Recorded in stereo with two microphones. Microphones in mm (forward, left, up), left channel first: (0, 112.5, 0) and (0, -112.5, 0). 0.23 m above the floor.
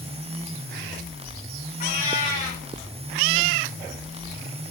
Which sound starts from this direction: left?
A cat meowing, at 1.8 s.